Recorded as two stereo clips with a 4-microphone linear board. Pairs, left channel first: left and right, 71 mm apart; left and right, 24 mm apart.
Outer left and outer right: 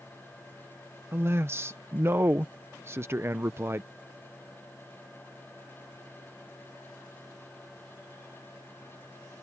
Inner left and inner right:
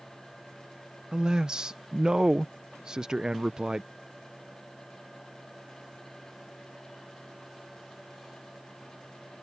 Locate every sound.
1.1 s a man speaking: 35° right (ahead or behind)